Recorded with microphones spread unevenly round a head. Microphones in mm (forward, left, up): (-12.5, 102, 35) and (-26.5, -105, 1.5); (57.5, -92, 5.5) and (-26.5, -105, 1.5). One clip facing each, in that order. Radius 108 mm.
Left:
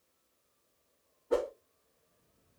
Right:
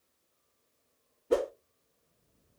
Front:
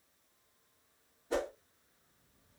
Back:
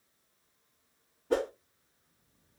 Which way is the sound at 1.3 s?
140° right.